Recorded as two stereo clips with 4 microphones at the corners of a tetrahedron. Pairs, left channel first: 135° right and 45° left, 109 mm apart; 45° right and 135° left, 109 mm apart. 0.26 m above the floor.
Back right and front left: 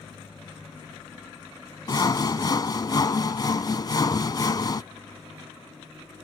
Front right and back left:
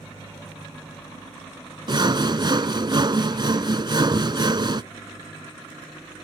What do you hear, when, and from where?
1.9 s sawing: 175° left